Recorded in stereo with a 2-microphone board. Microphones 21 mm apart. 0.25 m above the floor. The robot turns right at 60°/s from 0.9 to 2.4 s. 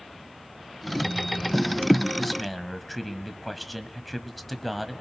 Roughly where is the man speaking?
Centre.